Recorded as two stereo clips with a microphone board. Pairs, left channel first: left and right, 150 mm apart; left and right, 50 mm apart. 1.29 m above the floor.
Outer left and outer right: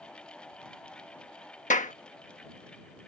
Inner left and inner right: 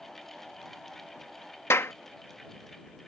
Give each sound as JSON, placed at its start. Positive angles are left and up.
{"t": 1.7, "sound": "a clap", "side_deg": 55}